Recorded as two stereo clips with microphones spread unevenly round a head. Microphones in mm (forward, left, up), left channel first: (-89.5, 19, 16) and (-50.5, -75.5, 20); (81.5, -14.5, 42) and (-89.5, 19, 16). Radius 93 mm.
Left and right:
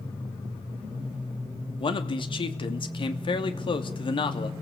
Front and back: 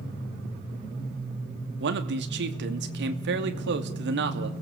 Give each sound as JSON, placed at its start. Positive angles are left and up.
{"t": 1.8, "sound": "a man speaking", "azimuth_deg": 150, "distance_m": 3.0}